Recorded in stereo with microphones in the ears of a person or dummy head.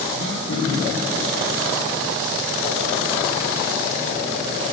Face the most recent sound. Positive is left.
turn(degrees=45)  # may be behind; listen again after turning